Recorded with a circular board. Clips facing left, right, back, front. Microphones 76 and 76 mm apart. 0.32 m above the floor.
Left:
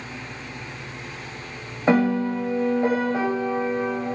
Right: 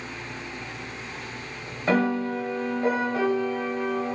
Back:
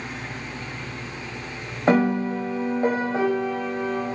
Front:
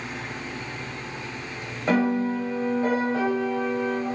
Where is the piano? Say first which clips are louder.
Left 4 dB, back 2 dB; 145° left, 0.7 m.